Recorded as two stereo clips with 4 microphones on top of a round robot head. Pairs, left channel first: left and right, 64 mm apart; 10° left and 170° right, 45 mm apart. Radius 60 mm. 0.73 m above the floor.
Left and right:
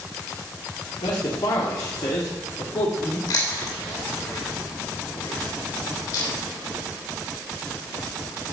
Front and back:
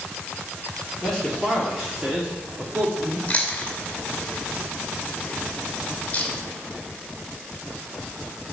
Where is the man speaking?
90° left, 1.7 m; by 3.2 s 140° left, 1.6 m.